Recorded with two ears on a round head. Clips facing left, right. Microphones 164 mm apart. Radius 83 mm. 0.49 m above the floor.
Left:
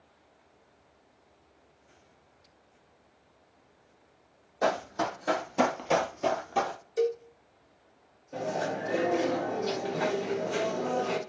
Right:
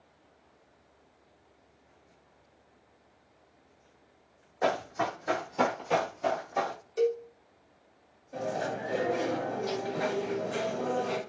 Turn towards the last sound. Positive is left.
turn(degrees=40)  # may be behind; listen again after turning